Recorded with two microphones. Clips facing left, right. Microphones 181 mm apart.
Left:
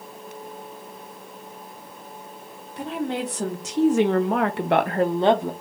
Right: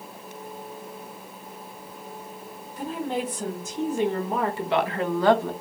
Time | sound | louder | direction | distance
2.8 | a woman speaking | left 2 dB | 70° left (ahead or behind) | 1.3 m